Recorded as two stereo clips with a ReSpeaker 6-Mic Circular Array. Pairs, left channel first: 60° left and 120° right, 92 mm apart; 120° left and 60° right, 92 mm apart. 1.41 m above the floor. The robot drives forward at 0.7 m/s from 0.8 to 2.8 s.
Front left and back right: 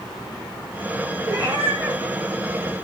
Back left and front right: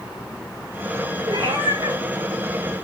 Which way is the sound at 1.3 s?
70° right.